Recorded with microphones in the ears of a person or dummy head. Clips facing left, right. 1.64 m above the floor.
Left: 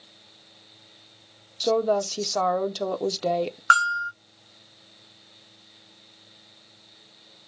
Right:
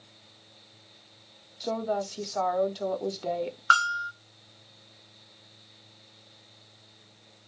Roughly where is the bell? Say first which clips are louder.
Left 3 dB; left.